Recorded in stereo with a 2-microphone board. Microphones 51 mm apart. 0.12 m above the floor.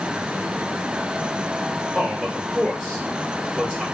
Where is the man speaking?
10° right (ahead or behind), 2.5 m.